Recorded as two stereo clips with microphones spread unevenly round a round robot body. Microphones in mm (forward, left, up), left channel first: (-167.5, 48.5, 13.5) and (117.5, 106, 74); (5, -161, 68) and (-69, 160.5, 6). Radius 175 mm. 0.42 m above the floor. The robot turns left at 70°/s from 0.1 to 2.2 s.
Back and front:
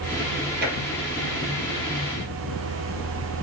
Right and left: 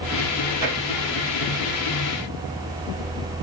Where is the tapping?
70° left, 5 m; by 0.8 s 55° left, 5 m.